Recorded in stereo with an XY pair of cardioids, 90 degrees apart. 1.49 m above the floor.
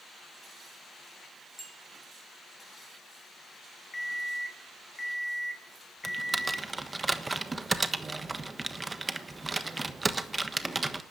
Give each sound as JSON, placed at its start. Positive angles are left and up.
{"t": 1.6, "sound": "a bicycle bell", "azimuth_deg": 10, "distance_m": 4.0}
{"t": 3.9, "sound": "an alarm clock", "azimuth_deg": 25, "distance_m": 2.5}
{"t": 6.0, "sound": "typing on a keyboard", "azimuth_deg": -25, "distance_m": 1.3}